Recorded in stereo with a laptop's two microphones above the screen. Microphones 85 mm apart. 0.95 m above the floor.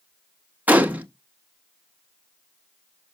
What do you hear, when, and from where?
0.7 s a gunshot: 20° right (ahead or behind), 0.7 m